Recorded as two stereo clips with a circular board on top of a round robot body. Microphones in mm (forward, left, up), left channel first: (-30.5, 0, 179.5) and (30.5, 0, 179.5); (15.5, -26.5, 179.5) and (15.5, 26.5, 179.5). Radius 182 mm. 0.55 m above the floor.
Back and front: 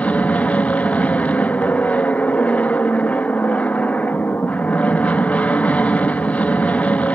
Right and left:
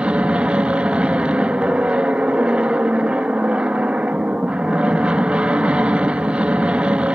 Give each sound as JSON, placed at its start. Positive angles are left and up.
{"t": 0.0, "sound": "an aircraft", "azimuth_deg": 140}